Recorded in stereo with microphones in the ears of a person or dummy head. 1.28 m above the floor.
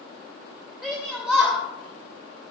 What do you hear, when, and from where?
0.8 s a shout: 5° right (ahead or behind), 2.5 m